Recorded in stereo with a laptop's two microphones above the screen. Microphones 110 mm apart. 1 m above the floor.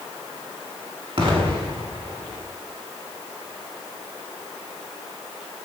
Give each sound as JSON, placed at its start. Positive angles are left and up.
{"t": 1.2, "sound": "an explosion", "side_deg": -50, "distance_m": 1.8}